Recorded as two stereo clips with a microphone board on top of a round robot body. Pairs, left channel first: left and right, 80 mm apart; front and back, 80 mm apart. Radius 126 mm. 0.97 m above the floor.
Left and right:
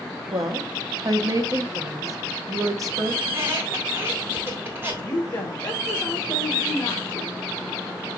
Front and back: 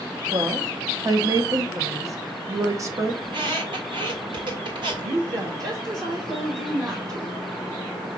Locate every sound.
0.3 s a woman speaking: 135° right, 1.2 m
3.2 s a squeak: 155° right, 1.8 m
5.0 s a woman speaking: 150° left, 1.2 m